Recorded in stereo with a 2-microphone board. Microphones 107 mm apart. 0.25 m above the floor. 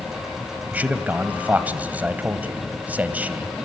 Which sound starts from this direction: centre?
A man speaking, at 0.7 s.